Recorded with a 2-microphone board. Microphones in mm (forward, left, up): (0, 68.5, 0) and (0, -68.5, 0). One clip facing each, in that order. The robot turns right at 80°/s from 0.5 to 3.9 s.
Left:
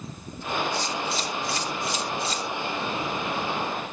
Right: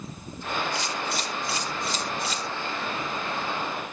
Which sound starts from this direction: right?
A camera shutter, at 0.8 s.